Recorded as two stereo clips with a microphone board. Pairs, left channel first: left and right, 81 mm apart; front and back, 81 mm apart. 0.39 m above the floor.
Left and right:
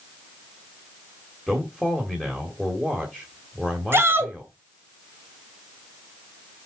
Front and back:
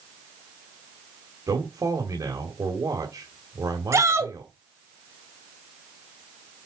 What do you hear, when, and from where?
1.5 s a man speaking: 175° right, 1.7 m
3.9 s a shout: 140° right, 1.8 m